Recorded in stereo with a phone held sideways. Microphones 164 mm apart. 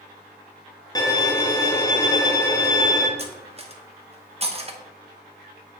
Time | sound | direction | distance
0.9 | a violin | 25° left (ahead or behind) | 0.7 m
3.2 | cutlery clinking | 40° right (ahead or behind) | 0.7 m